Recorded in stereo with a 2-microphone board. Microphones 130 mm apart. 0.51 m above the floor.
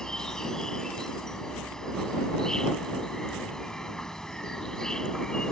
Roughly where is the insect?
Centre.